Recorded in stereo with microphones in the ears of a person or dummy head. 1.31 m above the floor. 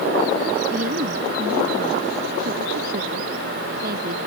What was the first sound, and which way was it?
A woman speaking, 40° right (ahead or behind).